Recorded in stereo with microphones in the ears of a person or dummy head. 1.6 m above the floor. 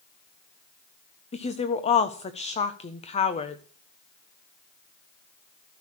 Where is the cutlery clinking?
I don't hear cutlery clinking.